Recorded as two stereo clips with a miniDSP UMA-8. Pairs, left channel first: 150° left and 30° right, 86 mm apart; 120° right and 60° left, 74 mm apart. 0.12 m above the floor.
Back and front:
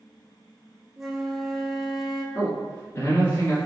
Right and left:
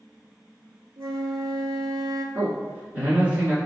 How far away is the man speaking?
About 1.3 m.